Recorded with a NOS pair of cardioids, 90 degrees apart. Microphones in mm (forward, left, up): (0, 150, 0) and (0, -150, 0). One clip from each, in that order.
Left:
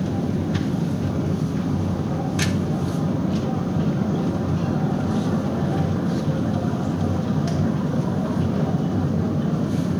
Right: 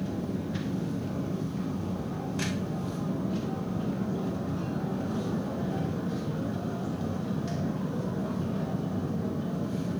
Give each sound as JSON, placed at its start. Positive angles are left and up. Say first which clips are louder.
{"t": 0.0, "sound": "a machine running", "louder": "left 8 dB", "azimuth_deg": 55, "distance_m": 1.6}